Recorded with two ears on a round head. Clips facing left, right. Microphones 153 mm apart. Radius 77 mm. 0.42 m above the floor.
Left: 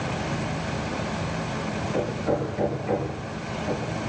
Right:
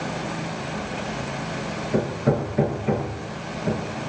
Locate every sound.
1.9 s hammering: 55° right (ahead or behind), 8 m